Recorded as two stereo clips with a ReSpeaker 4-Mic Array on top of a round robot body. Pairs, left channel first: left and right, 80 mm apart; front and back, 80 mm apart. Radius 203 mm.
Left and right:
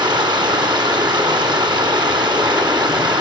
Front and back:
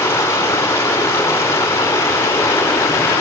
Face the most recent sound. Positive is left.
turn(degrees=-60)